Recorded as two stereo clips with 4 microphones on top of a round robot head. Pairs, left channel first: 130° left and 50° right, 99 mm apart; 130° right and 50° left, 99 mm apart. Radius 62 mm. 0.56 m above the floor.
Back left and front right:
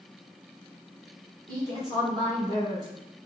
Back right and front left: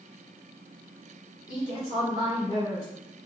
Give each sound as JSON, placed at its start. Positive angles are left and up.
{"t": 1.5, "sound": "a woman speaking", "azimuth_deg": -90, "distance_m": 1.9}